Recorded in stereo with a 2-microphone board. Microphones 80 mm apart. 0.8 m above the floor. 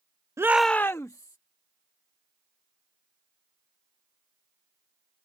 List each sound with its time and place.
0.4 s a shout: 35° right (ahead or behind); by 1.4 s 50° left (ahead or behind)